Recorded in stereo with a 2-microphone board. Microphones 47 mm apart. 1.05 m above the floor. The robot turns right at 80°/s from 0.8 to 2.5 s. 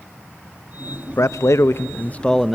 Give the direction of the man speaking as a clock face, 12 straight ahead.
10 o'clock.